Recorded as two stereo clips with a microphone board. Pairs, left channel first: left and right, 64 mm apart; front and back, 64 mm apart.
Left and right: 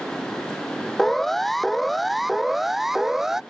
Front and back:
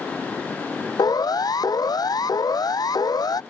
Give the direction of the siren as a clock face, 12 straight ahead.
12 o'clock.